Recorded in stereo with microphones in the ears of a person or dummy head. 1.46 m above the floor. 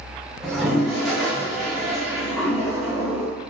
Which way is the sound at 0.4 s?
Centre (ahead or behind).